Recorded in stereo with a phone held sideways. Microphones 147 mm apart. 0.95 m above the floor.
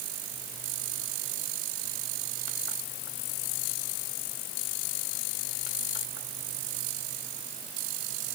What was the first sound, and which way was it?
Only background noise.